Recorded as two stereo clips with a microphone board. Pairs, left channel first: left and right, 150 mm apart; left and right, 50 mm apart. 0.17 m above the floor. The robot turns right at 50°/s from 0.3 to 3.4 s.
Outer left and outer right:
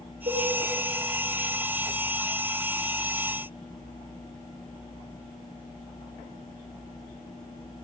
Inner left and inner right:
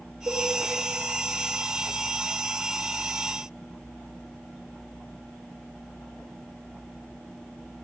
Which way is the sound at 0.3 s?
55° right (ahead or behind).